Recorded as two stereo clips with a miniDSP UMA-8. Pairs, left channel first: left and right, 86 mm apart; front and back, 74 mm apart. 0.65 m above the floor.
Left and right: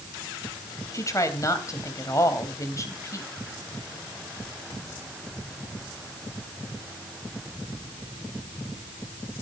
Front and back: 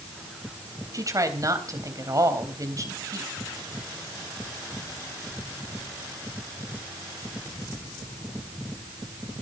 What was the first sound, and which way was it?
A woman speaking, 140° left.